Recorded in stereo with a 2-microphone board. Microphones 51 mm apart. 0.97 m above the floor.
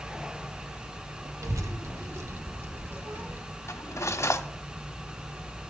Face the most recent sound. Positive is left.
turn(degrees=65)  # may be behind; listen again after turning